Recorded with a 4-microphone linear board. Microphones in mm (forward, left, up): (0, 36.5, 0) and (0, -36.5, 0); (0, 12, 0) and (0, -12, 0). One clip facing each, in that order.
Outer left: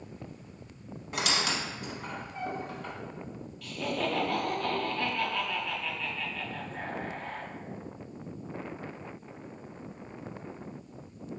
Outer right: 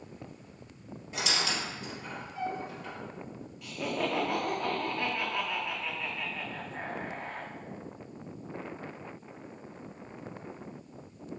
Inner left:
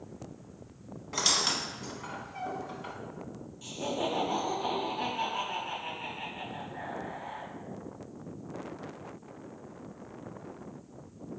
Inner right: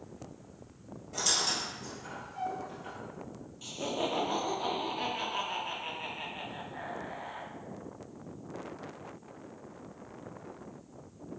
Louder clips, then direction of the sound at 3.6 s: Even, inner left 1 dB; 20° right (ahead or behind).